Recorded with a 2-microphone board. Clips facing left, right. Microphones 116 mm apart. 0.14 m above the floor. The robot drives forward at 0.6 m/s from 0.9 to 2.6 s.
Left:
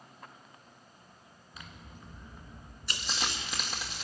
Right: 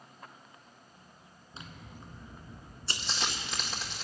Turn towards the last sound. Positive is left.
turn(degrees=5)  # may be behind; listen again after turning